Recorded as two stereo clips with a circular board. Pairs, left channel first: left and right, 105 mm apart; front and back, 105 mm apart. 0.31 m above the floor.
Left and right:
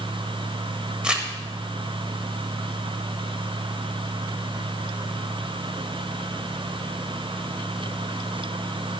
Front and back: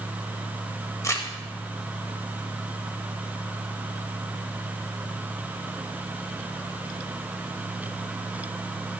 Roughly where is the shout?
I don't hear a shout.